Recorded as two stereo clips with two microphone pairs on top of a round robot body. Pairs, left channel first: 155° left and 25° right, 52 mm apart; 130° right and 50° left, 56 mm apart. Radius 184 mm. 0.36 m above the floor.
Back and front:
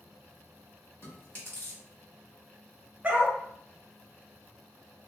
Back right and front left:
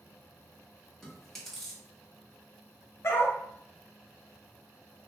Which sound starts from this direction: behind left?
Chewing, at 1.0 s.